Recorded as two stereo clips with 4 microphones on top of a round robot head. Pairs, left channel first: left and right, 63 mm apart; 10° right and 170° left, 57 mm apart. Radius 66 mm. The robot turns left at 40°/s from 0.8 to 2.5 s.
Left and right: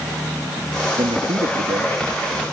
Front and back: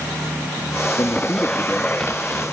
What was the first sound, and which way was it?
A man speaking, 60° right.